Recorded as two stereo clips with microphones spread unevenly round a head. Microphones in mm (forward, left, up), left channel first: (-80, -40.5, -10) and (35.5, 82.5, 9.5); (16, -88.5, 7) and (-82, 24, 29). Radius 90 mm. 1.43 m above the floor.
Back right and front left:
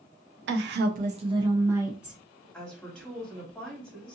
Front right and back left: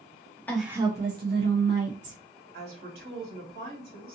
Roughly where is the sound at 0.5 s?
Ahead left.